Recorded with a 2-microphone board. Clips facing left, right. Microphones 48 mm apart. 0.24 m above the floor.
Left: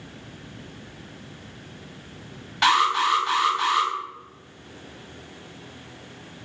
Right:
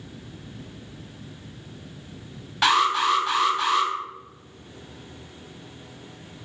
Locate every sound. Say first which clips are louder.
2.6 s an alarm: even; centre (ahead or behind), 0.9 m